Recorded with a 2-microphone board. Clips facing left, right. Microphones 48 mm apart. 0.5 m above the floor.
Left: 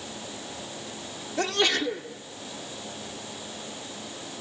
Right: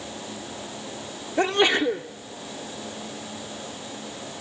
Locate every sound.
1.4 s a sneeze: 25° right (ahead or behind), 0.8 m